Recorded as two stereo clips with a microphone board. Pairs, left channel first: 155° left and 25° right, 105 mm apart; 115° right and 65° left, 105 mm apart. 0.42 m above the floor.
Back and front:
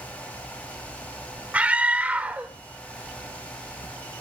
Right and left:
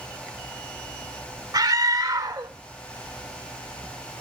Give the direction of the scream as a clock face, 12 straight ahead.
10 o'clock.